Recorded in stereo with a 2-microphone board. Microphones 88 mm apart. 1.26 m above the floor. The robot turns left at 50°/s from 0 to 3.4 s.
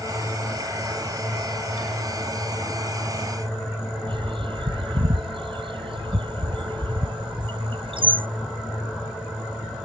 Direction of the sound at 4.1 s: 80° right.